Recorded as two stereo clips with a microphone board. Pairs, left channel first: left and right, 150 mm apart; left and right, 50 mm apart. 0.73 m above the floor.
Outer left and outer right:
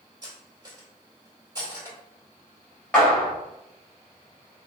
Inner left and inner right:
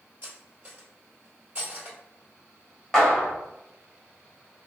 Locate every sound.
0.2 s cutlery clinking: 30° right (ahead or behind), 1.5 m
2.9 s a clap: 10° left (ahead or behind), 1.5 m